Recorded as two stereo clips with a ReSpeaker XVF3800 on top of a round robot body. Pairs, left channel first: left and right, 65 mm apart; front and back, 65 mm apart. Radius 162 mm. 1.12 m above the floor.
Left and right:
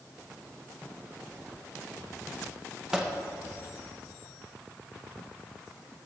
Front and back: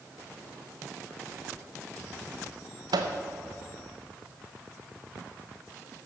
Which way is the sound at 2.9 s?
175° right.